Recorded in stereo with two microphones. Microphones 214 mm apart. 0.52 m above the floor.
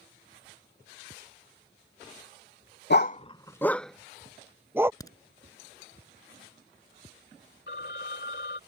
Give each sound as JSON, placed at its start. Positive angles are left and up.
{"t": 2.9, "sound": "a dog barking", "side_deg": 60}
{"t": 5.0, "sound": "a crack", "side_deg": 15}
{"t": 7.7, "sound": "a phone ringing", "side_deg": 65}